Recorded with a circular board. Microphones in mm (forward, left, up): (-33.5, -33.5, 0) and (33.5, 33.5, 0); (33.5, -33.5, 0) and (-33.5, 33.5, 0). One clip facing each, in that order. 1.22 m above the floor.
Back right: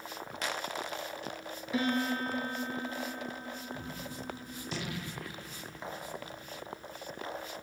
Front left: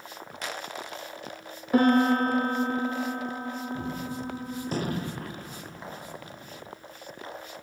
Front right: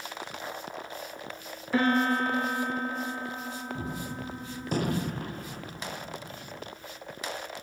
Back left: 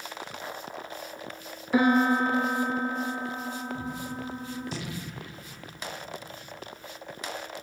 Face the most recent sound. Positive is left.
turn(degrees=-5)